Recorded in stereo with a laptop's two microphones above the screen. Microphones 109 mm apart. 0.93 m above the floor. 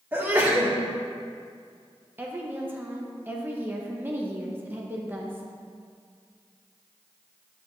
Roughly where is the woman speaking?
Centre.